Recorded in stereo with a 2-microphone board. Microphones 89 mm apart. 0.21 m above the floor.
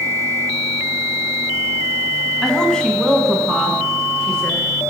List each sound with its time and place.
2.4 s a woman speaking: 5° left (ahead or behind), 1.2 m; by 4.6 s 10° left (ahead or behind), 2.5 m